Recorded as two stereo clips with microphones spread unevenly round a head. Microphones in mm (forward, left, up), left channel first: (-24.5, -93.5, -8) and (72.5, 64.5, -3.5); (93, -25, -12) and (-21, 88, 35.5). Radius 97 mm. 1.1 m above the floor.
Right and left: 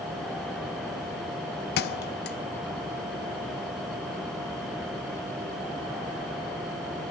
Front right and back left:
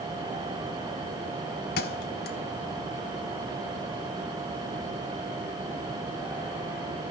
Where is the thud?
95° right, 0.7 m.